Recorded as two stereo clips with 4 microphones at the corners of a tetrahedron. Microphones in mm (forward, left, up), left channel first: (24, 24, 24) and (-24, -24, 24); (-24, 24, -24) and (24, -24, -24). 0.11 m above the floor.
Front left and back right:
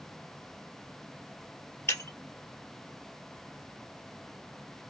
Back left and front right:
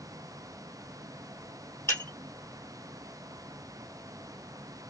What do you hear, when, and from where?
1.9 s breaking glass: 95° left, 1.6 m